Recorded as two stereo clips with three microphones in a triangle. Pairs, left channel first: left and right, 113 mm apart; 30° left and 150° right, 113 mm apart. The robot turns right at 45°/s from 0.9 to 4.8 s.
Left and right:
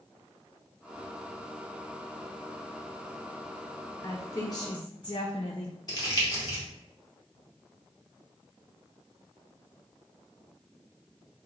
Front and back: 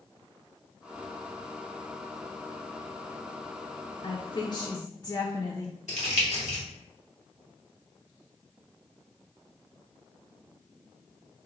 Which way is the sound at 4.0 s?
35° left.